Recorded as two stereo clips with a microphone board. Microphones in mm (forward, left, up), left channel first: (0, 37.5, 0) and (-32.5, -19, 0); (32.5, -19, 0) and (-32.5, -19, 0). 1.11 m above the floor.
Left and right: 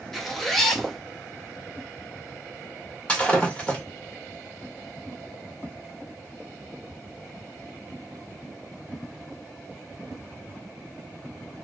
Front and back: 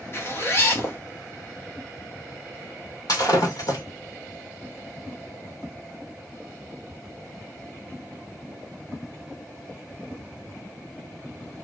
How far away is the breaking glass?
About 1.6 m.